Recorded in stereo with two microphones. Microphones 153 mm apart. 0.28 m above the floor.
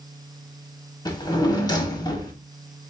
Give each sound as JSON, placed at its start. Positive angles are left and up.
{"t": 1.1, "sound": "a drawer", "side_deg": 25, "distance_m": 0.8}